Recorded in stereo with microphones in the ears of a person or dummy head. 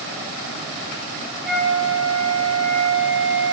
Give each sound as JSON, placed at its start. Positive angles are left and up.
{"t": 1.4, "sound": "a flute", "side_deg": -10, "distance_m": 1.4}